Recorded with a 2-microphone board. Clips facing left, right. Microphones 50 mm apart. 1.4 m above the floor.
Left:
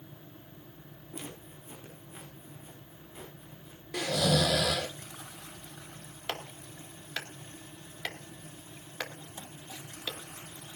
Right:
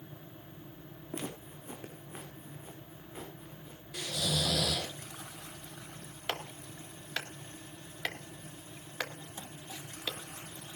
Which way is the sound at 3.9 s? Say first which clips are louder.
Left 7 dB; 70° left (ahead or behind).